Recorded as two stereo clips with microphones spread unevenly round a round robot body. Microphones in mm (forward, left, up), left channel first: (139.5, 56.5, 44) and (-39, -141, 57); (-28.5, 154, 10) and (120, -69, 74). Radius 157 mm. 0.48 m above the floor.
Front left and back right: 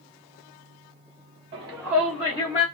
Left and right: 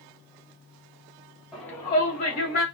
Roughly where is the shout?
Behind.